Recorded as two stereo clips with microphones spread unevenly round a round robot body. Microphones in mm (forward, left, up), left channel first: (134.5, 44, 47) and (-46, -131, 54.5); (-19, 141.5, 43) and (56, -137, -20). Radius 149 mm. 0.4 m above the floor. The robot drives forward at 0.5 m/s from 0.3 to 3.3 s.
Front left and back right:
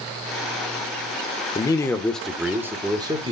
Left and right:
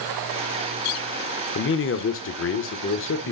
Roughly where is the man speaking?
Left.